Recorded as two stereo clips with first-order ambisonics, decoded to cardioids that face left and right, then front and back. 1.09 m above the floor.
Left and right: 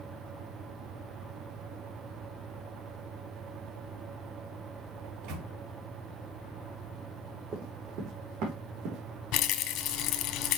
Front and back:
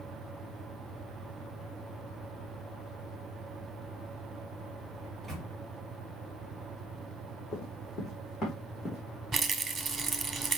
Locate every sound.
5.0 s a microwave: 85° right, 2 m
7.5 s running footsteps: 45° right, 2.5 m; by 9.0 s 75° right, 3.5 m
9.3 s a rattle: 110° left, 1.1 m